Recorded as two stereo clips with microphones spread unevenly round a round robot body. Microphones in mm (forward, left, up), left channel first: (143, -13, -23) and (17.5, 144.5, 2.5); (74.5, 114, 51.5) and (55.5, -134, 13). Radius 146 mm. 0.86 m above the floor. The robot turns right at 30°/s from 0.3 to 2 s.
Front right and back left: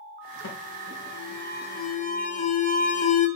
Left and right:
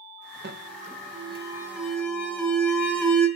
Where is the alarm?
50° right, 0.8 m; by 3.3 s 5° right, 0.8 m.